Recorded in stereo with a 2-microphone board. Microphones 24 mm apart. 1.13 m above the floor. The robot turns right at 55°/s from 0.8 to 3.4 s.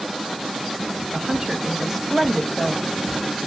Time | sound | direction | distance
1.1 | a woman speaking | 50° right | 0.9 m